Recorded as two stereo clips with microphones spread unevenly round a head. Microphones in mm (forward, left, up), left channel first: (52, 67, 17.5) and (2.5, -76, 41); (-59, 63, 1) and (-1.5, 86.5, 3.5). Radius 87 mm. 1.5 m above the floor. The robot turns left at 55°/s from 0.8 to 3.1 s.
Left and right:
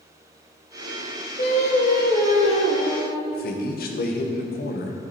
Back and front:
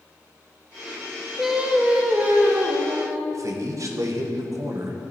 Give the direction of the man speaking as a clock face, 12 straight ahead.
10 o'clock.